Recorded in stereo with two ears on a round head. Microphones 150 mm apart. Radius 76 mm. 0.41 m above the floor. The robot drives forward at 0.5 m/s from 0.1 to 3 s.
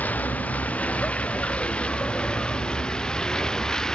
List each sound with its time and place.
0.0 s a vehicle: 10° left (ahead or behind); by 4.0 s 5° left (ahead or behind)